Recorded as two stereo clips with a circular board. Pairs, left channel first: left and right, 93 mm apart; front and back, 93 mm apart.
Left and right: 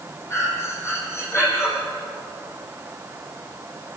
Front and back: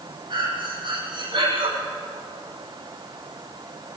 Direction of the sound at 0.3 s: 150° left.